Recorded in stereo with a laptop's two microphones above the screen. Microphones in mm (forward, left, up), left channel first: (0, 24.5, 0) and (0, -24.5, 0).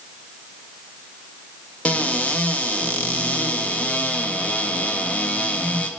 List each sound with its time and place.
1.9 s a cupboard door: 30° left (ahead or behind), 0.5 m